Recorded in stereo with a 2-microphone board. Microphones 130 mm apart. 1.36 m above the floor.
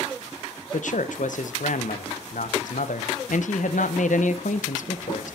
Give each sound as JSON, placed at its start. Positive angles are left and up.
{"t": 0.7, "sound": "a man speaking", "side_deg": 85, "distance_m": 0.9}